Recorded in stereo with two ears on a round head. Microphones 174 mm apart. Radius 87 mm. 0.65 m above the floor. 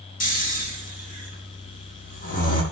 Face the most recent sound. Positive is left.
turn(degrees=45)  # may be behind; listen again after turning